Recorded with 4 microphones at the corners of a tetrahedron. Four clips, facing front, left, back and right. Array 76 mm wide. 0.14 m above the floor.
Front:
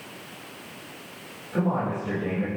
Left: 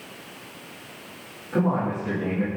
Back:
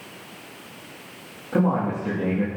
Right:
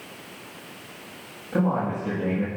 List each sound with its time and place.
1.5 s a man speaking: 175° right, 6 m